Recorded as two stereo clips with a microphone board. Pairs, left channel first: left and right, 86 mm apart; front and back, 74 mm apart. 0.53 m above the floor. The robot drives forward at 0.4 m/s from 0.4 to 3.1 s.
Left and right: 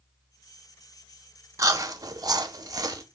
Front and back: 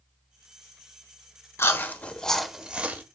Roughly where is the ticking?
I don't hear ticking.